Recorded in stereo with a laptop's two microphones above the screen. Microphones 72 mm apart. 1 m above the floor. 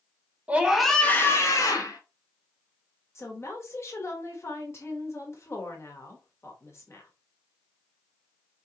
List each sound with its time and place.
0.5 s a scream: 20° right (ahead or behind), 0.9 m; by 2.0 s 65° left (ahead or behind), 1.3 m
3.1 s a woman speaking: 40° left (ahead or behind), 1.1 m